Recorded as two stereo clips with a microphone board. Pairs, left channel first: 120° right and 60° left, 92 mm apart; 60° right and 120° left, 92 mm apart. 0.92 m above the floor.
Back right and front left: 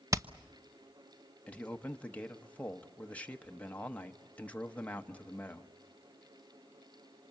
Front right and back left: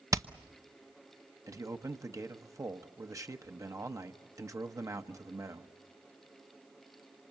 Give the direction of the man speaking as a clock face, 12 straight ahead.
6 o'clock.